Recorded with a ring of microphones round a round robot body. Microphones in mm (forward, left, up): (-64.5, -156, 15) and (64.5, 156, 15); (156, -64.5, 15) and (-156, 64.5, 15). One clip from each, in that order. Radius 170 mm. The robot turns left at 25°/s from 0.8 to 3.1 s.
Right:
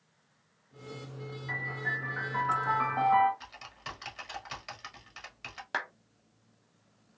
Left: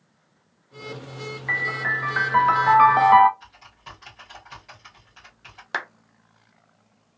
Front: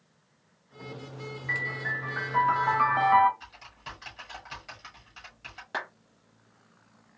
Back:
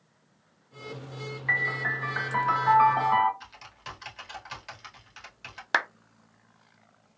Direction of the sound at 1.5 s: 110° left.